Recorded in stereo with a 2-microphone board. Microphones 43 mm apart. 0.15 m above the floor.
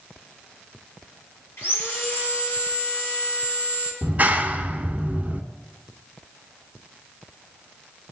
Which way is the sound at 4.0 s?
35° right (ahead or behind).